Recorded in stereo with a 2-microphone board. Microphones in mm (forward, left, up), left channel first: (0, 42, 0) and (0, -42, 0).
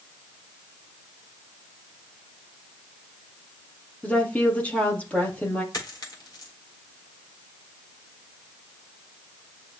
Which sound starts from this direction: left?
A dropped coin, at 5.7 s.